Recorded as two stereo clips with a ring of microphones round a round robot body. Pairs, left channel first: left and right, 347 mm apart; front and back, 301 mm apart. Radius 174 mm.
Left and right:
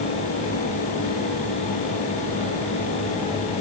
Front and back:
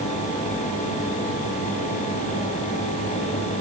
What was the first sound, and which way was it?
Only background noise.